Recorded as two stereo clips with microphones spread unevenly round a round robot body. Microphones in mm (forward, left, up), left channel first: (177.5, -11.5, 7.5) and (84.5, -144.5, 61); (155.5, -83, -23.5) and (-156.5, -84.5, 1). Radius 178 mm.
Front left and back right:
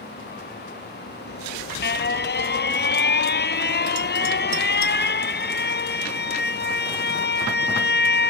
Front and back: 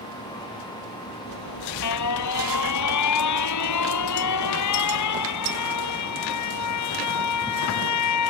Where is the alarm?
50° left.